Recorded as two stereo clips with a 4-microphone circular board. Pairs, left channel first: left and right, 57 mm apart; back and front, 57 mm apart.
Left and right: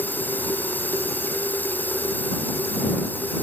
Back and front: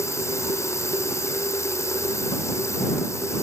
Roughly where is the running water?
Behind left.